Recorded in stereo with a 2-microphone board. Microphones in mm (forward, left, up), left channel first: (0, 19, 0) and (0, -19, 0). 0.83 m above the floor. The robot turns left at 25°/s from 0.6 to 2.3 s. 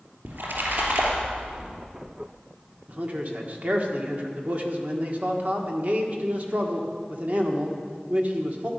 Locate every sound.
0.2 s a splash: 75° right (ahead or behind), 3 m; by 1.7 s 50° right (ahead or behind), 3 m
2.9 s a man speaking: 50° right (ahead or behind), 1.6 m